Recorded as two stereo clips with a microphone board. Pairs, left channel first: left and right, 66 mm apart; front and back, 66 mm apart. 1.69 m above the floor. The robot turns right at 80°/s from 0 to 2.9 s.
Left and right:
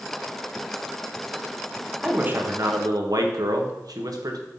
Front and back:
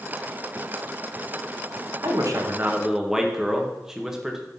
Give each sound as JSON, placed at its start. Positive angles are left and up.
{"t": 2.0, "sound": "a man speaking", "azimuth_deg": -170, "distance_m": 1.6}